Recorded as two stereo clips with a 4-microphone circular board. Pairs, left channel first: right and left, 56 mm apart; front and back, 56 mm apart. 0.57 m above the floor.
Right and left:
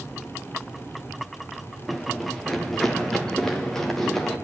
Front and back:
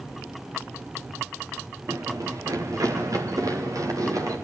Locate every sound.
1.9 s running footsteps: 175° right, 3 m; by 4.4 s 170° right, 5.5 m